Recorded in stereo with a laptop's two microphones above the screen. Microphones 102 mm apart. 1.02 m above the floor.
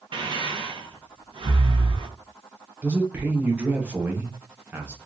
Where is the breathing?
55° right (ahead or behind), 0.9 m.